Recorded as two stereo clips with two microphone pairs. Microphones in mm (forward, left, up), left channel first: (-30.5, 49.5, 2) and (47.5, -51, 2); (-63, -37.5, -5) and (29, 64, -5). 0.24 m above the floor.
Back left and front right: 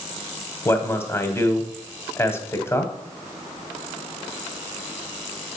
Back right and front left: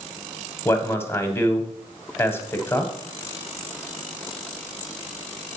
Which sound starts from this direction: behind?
A man speaking, at 0.7 s.